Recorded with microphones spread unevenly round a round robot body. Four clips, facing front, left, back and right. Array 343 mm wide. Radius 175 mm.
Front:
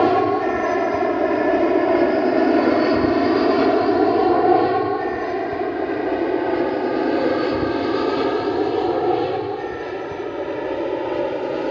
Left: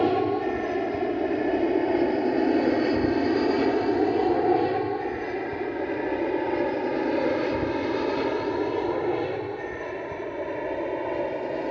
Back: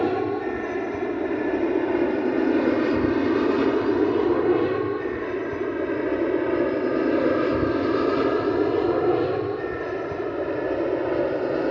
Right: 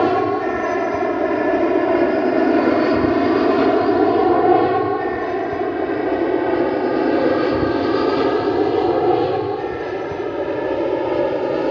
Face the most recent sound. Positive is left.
turn(degrees=-100)